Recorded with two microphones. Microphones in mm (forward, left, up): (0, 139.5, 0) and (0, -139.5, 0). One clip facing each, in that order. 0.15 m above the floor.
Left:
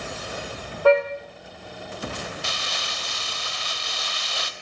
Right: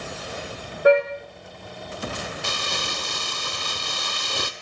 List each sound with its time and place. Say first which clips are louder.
0.8 s a car horn: right 1 dB; 15° right (ahead or behind), 6 m
2.4 s crumpling: right 4 dB; 50° right (ahead or behind), 1.1 m